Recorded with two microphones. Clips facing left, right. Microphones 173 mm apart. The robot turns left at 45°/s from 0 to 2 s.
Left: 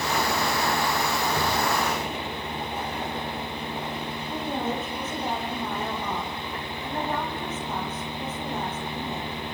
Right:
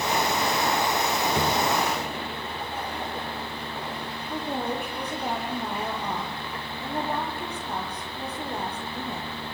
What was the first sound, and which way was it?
A drawer, 20° right (ahead or behind).